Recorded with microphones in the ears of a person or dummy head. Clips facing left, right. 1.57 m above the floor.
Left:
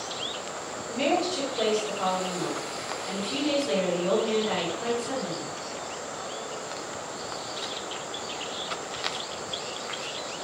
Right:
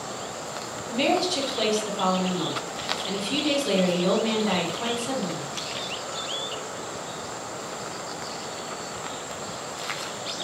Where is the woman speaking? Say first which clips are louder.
Right 2 dB; 65° right (ahead or behind), 1.0 m.